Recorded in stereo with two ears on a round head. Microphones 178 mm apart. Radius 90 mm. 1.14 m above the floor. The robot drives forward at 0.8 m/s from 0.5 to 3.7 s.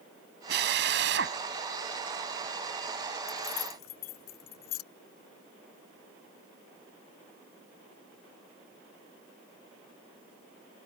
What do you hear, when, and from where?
0.5 s a drill: 55° right (ahead or behind); by 1.4 s 60° right (ahead or behind)
3.3 s keys jangling: 85° left